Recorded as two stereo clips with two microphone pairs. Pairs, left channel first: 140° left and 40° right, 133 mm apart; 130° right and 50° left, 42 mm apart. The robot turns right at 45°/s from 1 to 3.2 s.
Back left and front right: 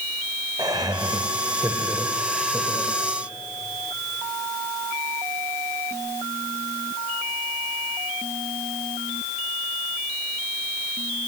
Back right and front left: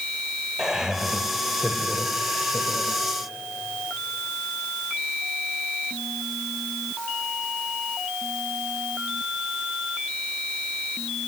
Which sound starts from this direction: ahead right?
Laughter, at 0.6 s.